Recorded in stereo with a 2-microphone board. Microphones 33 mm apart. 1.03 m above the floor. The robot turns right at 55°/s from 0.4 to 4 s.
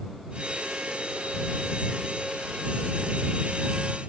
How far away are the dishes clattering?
No dishes clattering in this recording.